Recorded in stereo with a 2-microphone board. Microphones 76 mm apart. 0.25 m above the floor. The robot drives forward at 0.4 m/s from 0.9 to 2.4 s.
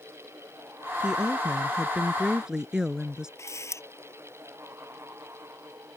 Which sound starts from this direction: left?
A camera shutter, at 3.4 s.